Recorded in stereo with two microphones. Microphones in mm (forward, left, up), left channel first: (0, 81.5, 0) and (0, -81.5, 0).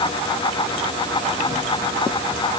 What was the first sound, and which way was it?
Only background noise.